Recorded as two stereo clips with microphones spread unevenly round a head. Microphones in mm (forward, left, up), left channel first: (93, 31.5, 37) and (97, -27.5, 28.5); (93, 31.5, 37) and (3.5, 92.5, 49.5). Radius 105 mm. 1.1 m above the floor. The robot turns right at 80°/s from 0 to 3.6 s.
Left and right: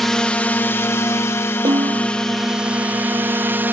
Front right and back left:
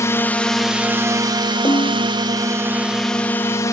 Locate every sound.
0.0 s a drone: straight ahead; by 3.7 s 70° right
1.6 s a snare drum: 105° right; by 2.1 s 75° right